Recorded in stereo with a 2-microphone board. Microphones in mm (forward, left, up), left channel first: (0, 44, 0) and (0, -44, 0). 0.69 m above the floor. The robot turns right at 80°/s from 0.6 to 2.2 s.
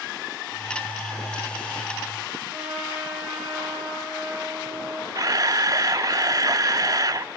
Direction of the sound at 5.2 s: 45° right (ahead or behind).